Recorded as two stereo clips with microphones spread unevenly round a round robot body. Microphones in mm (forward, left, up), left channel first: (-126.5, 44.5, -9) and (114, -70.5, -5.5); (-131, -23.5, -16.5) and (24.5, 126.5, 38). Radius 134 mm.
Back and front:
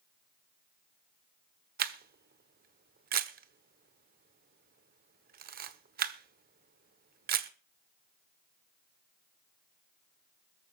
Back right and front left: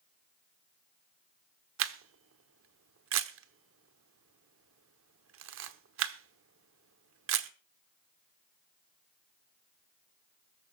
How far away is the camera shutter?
About 1.0 m.